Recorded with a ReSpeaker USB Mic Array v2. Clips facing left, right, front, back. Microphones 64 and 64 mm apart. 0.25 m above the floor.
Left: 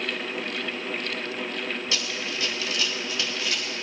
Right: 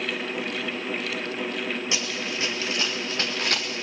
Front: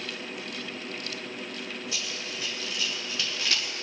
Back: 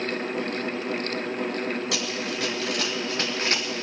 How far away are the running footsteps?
About 2.5 m.